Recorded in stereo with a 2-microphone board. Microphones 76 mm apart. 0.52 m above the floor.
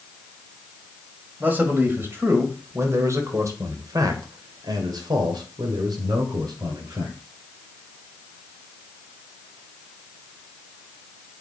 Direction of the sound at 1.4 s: 25° right (ahead or behind).